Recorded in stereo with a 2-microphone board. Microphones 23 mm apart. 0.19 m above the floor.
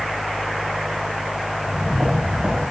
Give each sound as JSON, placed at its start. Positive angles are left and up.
{"t": 1.6, "sound": "footsteps", "side_deg": -70, "distance_m": 9.5}